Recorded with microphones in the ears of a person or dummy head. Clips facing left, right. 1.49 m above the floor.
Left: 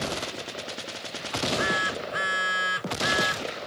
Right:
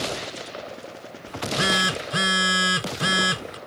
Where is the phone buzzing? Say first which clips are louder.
Right 1 dB; 50° right (ahead or behind).